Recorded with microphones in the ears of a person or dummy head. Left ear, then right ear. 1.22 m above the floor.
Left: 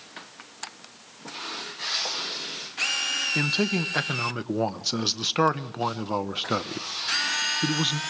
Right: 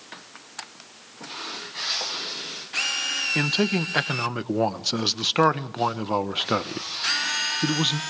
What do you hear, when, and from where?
3.4 s a man speaking: 15° right (ahead or behind), 0.8 m